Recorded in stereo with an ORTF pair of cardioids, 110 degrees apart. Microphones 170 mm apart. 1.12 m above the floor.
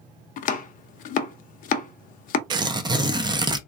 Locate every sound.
0.4 s chopping: 55° left, 0.5 m
2.5 s tearing paper: 25° right, 0.5 m